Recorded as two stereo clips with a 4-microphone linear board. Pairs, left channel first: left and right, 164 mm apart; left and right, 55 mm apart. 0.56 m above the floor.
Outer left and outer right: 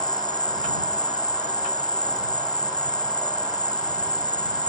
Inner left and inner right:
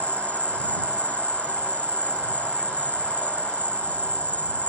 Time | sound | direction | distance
0.0 | an insect | 25° left (ahead or behind) | ?